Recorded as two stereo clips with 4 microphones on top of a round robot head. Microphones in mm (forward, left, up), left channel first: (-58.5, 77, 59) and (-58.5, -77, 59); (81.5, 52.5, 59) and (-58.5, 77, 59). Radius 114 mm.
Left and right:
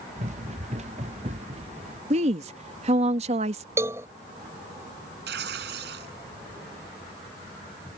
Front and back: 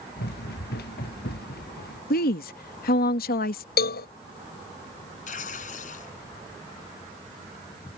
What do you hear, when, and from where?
0.2 s running footsteps: 35° right; by 2.0 s 30° right
2.1 s a woman speaking: 35° right
3.8 s a cowbell: 10° right
5.3 s tearing paper: 60° right